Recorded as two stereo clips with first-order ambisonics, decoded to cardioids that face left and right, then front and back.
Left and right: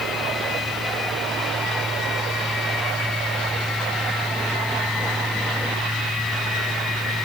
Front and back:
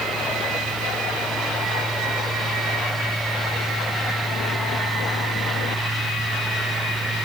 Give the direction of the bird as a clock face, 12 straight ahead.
No bird in this recording.